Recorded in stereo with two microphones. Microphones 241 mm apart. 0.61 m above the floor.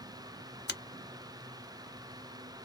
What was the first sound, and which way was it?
A finger snap, 45° left (ahead or behind).